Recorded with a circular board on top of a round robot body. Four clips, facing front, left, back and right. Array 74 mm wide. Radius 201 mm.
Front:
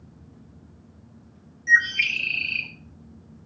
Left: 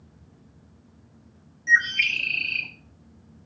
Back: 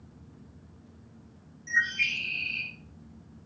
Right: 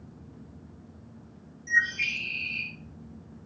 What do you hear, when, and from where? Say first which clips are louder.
1.7 s a bird: left 5 dB, front 8 dB; 50° left, 2.0 m